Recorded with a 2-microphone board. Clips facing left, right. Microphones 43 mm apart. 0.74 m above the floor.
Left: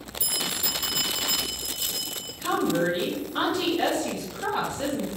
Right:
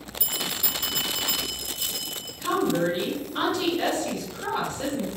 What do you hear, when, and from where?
0.2 s a bell: 55° right (ahead or behind), 0.7 m
2.4 s a woman speaking: 10° left (ahead or behind), 0.9 m